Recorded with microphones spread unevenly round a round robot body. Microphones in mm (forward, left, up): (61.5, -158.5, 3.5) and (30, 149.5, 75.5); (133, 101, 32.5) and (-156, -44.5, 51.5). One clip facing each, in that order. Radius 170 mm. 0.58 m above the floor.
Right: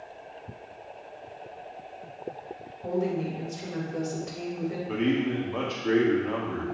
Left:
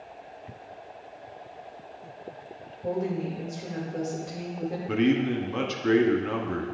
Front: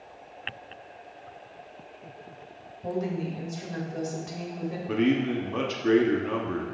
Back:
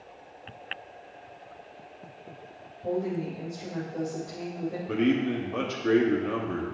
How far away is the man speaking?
About 1.1 m.